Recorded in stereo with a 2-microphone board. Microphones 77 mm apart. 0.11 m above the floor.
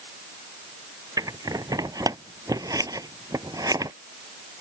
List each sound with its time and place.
1.2 s scissors: 50° right (ahead or behind)